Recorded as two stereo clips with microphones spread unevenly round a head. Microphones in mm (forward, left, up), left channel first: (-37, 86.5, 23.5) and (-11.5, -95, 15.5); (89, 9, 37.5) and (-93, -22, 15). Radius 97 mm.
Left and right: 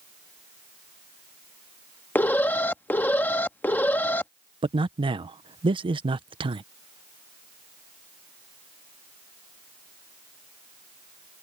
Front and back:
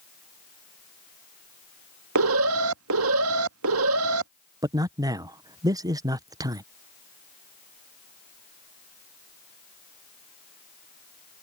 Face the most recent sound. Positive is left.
turn(degrees=-120)